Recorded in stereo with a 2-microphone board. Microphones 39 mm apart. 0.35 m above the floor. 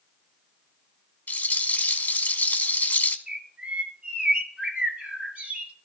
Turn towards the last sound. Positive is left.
turn(degrees=-40)  # may be behind; listen again after turning